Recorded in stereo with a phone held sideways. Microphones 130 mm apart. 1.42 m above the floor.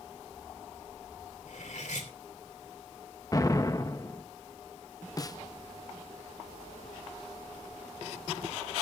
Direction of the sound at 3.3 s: 30° left (ahead or behind).